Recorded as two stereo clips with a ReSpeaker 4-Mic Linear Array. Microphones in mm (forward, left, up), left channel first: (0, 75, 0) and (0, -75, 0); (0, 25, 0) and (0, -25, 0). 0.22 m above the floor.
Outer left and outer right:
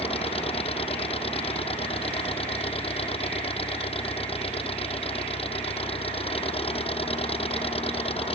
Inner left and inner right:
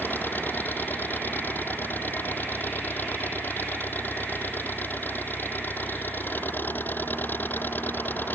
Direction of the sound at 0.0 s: 40° left (ahead or behind).